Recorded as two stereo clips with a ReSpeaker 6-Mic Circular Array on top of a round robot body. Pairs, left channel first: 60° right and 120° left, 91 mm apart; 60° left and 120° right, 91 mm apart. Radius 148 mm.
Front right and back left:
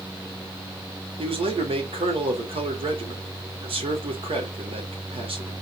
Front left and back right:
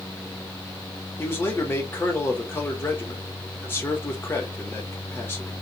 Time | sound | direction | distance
1.2 | a man speaking | 125° left | 2 m